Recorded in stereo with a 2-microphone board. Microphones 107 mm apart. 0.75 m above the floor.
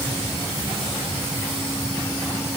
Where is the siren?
I don't hear a siren.